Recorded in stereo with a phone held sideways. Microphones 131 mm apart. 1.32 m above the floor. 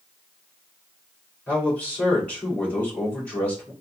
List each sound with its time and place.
1.5 s a man speaking: 10° left (ahead or behind), 3 m